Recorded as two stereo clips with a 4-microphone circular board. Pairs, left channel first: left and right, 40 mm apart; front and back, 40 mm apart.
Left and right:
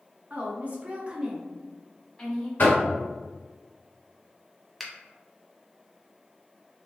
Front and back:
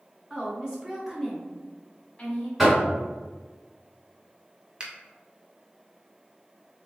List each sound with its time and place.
0.3 s a woman speaking: 120° right, 1.6 m; by 2.5 s 55° left, 1.2 m
2.6 s knocking: 95° left, 1.4 m
4.8 s a finger snap: 175° left, 0.8 m